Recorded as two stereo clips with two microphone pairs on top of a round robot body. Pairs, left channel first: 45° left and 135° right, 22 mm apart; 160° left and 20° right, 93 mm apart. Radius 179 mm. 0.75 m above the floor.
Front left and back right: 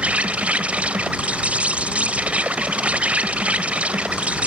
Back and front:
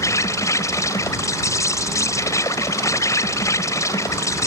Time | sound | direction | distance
0.0 | an insect | 145° right | ?